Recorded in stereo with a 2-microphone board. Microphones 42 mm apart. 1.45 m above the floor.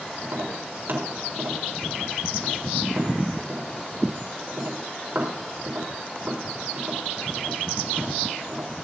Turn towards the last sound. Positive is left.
turn(degrees=-50)  # may be behind; listen again after turning